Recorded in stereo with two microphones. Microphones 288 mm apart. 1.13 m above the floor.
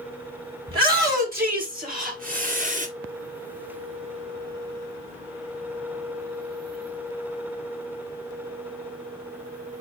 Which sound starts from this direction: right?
A shout, at 0.7 s.